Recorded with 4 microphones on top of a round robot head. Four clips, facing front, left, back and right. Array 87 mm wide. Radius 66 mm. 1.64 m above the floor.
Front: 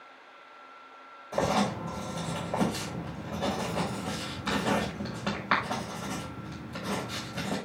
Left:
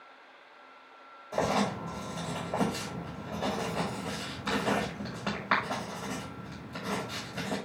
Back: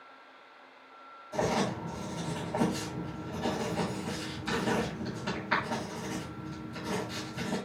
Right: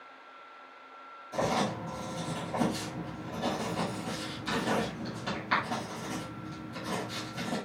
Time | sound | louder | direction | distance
1.3 | writing | left 1 dB, front 3 dB | 40° left | 8 m